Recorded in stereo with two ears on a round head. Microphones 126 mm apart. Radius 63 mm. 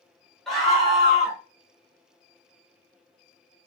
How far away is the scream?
About 1.8 m.